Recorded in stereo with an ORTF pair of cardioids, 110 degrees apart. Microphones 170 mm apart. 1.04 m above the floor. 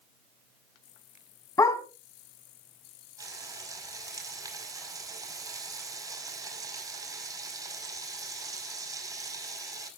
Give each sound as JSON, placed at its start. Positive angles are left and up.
{"t": 1.6, "sound": "a dog barking", "azimuth_deg": 20, "distance_m": 2.5}
{"t": 3.2, "sound": "frying", "azimuth_deg": -20, "distance_m": 5.5}